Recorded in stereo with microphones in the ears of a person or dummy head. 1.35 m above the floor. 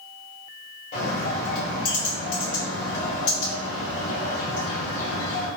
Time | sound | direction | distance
0.9 | a bird | 50° left (ahead or behind) | 1.7 m